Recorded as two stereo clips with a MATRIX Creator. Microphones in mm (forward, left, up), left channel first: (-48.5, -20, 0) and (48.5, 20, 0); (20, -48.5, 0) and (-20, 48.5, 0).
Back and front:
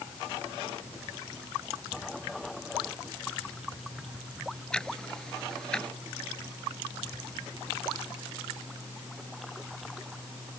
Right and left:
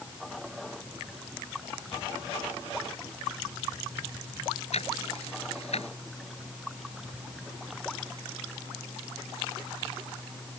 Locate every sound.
4.7 s ticking: 75° right